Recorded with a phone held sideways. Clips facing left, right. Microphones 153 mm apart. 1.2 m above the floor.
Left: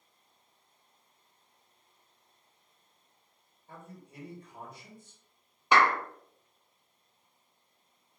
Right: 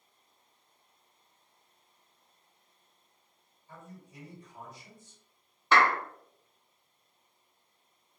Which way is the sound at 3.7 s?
60° left (ahead or behind).